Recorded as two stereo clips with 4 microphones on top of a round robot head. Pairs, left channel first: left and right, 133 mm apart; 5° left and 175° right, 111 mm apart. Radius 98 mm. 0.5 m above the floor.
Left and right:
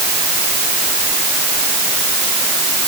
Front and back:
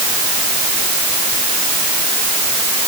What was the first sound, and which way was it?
Only background noise.